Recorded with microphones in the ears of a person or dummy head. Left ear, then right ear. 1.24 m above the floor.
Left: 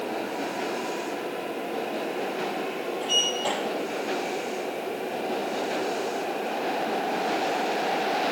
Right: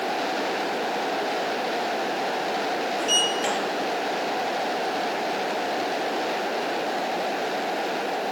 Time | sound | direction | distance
3.0 | a sliding door | 65° right (ahead or behind) | 6 m